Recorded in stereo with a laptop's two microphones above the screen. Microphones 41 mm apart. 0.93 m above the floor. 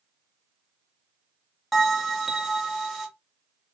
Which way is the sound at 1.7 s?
5° left (ahead or behind).